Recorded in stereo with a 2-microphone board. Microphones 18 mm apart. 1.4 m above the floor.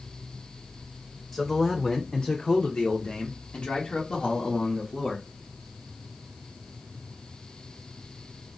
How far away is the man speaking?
About 0.7 m.